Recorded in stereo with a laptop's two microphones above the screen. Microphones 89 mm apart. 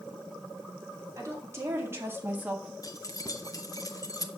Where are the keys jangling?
40° left (ahead or behind), 0.6 m.